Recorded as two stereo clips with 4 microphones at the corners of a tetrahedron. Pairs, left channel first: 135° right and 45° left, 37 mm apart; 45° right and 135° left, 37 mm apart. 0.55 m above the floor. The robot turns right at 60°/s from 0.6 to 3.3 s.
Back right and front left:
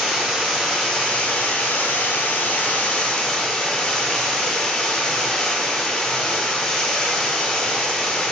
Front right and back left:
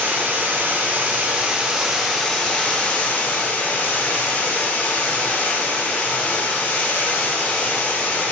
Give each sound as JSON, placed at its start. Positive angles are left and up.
{"t": 0.0, "sound": "running water", "azimuth_deg": 135, "distance_m": 0.9}